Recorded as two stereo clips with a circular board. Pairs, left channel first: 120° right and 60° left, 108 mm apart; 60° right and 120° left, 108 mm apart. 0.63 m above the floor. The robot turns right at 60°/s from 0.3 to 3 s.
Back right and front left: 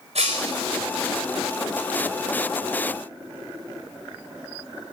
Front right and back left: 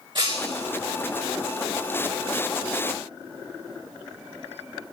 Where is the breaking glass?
80° left, 4 m; by 0.7 s 100° left, 4 m.